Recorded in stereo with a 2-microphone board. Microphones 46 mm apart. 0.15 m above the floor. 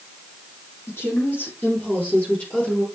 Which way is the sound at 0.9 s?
60° left (ahead or behind).